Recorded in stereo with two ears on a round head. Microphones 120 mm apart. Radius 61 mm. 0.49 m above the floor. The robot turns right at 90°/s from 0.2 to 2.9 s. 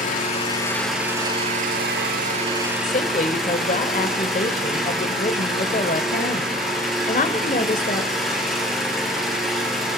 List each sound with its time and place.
0.0 s an engine running: 120° left, 6.5 m; by 10.0 s straight ahead, 6.5 m
2.8 s a woman speaking: 50° left (ahead or behind), 1.7 m; by 8.1 s 55° left (ahead or behind), 1.7 m